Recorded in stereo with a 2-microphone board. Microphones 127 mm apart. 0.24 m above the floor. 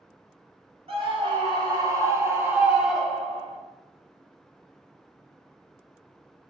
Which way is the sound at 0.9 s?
50° right (ahead or behind).